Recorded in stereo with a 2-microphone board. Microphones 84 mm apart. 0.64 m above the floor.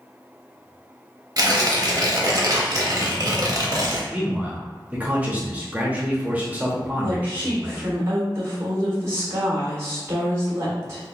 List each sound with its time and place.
1.4 s tearing paper: 45° right (ahead or behind), 0.7 m
4.1 s a man speaking: 15° right (ahead or behind), 0.7 m
7.0 s a woman speaking: 40° right (ahead or behind), 1.7 m